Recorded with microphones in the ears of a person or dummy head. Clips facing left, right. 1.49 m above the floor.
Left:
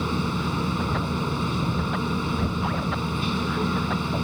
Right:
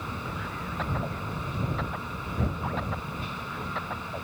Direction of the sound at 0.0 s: 70° left (ahead or behind).